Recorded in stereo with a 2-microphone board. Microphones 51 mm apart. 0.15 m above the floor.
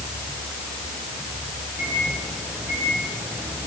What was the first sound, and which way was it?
A microwave, 35° right (ahead or behind).